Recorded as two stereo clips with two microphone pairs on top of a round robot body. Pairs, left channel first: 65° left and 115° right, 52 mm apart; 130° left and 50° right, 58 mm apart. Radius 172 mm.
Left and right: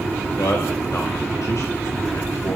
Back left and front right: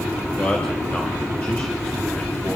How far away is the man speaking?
About 2.5 m.